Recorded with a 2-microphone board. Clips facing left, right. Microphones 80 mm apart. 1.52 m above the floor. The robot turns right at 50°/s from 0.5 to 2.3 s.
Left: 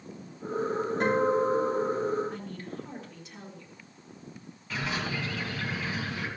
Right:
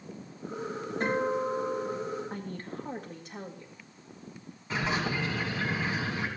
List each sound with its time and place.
1.0 s a guitar: 90° left, 5.5 m; by 2.2 s 150° left, 5.5 m
2.3 s a woman speaking: 40° right (ahead or behind), 1.7 m
4.7 s a bird: 30° right (ahead or behind), 2 m